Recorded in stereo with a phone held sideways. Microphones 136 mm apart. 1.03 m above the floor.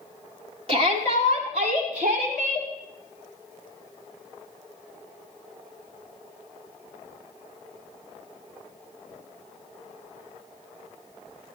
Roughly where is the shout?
Right.